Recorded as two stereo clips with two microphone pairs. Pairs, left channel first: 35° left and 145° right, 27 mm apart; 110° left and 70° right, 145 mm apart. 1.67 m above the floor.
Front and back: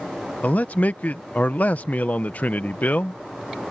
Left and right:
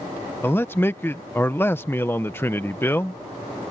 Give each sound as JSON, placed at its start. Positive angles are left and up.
{"t": 0.4, "sound": "a man speaking", "azimuth_deg": 35}